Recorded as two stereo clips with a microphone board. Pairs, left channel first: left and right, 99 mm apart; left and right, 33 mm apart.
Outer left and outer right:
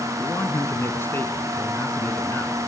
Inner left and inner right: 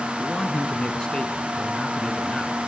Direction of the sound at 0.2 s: 25° left (ahead or behind).